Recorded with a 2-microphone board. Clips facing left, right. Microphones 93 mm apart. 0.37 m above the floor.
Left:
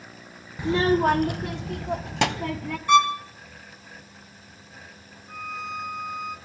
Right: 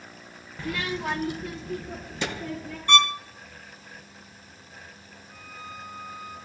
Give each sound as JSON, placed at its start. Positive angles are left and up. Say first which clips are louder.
{"t": 0.6, "sound": "a child speaking", "louder": "left 10 dB", "side_deg": 15, "distance_m": 0.5}
{"t": 2.9, "sound": "a violin", "louder": "left 5 dB", "side_deg": 5, "distance_m": 1.3}
{"t": 5.3, "sound": "a violin", "louder": "left 9 dB", "side_deg": 70, "distance_m": 4.0}